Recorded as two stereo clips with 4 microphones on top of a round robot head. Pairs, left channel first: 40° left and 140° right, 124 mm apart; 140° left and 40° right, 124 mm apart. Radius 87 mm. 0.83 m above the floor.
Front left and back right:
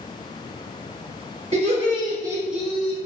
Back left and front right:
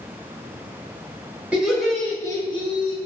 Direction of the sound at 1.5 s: 120° right.